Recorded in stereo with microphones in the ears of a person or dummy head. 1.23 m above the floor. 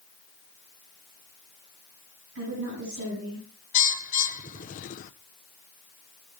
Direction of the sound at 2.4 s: 85° right.